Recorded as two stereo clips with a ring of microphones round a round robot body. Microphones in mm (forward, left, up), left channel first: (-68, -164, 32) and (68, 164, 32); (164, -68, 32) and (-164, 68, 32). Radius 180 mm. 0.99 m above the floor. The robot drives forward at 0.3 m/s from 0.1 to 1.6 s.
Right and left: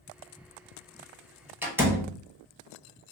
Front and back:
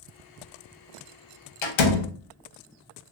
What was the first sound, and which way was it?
A door slam, 15° right.